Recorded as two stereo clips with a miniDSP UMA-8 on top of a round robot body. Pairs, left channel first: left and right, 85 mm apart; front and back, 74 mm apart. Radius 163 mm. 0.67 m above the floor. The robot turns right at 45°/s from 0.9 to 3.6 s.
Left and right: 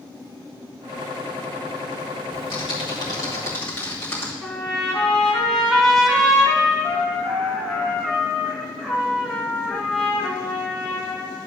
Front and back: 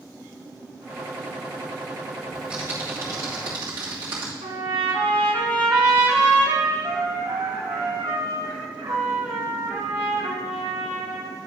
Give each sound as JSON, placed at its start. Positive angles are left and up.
{"t": 2.3, "sound": "typing on a keyboard", "azimuth_deg": 100, "distance_m": 1.9}
{"t": 4.4, "sound": "a trumpet", "azimuth_deg": 175, "distance_m": 1.2}